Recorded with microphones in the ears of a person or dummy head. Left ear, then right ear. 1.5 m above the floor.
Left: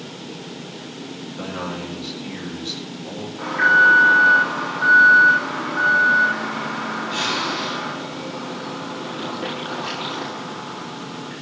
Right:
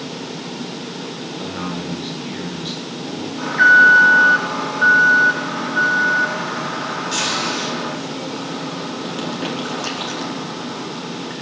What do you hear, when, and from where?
1.4 s a man speaking: 15° right (ahead or behind), 4.5 m
3.4 s an alarm: 65° right (ahead or behind), 4 m